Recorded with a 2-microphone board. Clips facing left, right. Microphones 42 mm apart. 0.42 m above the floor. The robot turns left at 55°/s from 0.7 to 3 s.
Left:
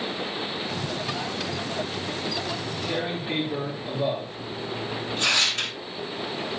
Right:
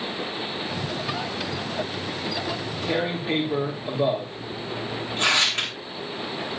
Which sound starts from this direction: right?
Tearing paper, at 2.5 s.